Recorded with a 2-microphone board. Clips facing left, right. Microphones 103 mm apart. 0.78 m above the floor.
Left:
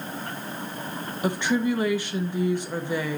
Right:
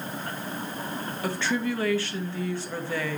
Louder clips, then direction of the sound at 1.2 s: Left 4 dB; 15° left (ahead or behind).